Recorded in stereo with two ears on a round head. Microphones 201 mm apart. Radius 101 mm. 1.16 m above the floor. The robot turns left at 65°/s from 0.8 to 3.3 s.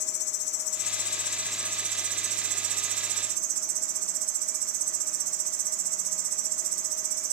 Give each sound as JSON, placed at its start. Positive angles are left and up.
{"t": 0.0, "sound": "an insect", "azimuth_deg": 50, "distance_m": 2.0}